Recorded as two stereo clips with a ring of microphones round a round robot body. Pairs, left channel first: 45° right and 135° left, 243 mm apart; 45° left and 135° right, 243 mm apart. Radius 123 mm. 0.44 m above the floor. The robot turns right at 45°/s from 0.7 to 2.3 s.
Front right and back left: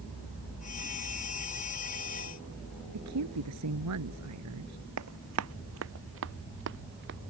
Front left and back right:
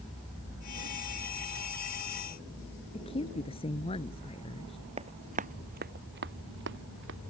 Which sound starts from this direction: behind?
Running footsteps, at 5.0 s.